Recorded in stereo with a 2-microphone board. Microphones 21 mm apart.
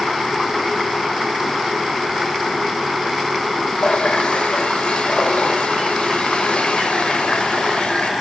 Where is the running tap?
80° left, 4 m.